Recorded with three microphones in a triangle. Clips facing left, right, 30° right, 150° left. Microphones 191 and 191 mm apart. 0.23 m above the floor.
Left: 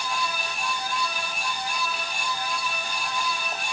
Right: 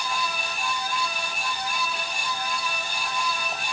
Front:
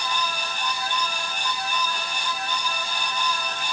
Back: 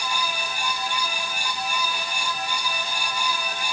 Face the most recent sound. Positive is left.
No sound to turn to.